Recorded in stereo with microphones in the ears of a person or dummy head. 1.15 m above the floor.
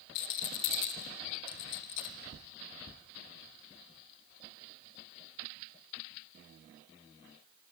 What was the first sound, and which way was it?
A rattle, 50° left (ahead or behind).